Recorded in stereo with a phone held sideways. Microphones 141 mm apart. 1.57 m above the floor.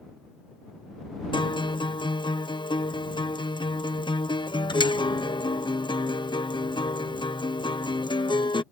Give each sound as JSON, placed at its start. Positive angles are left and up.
{"t": 1.3, "sound": "a guitar", "side_deg": 35}